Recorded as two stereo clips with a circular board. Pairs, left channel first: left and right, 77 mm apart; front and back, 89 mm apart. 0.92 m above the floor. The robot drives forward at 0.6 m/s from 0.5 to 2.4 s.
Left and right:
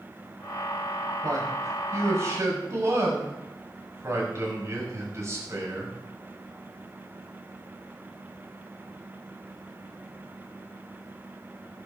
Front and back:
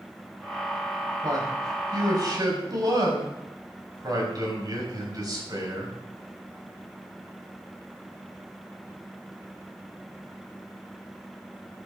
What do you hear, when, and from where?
1.2 s a man speaking: 135° right, 5.5 m; by 6.0 s 140° right, 6 m